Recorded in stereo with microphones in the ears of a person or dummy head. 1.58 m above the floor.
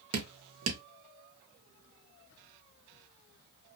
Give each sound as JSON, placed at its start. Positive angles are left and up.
{"t": 0.1, "sound": "dripping", "side_deg": -65, "distance_m": 0.8}